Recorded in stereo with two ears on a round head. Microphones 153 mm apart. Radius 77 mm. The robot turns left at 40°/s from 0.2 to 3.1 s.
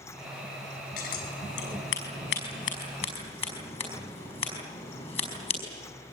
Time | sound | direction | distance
1.0 | scissors | 60° left (ahead or behind) | 5.5 m